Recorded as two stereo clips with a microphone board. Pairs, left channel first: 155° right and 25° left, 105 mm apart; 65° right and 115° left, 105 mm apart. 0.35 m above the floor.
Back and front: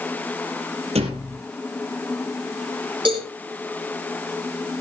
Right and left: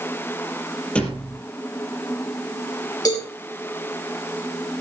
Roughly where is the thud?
Ahead.